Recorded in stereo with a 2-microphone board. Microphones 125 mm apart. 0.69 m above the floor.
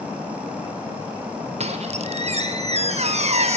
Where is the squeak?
60° right (ahead or behind), 1.5 m.